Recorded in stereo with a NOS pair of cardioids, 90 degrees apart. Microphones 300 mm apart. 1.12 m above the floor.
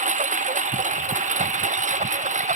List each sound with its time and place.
0.0 s a lawn mower: 25° right